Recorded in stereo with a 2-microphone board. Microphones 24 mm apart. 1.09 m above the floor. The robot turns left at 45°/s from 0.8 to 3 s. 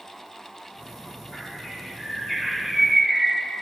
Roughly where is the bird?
Left.